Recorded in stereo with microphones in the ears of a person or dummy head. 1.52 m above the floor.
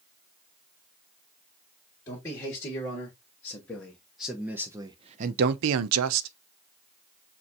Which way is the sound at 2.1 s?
20° left (ahead or behind).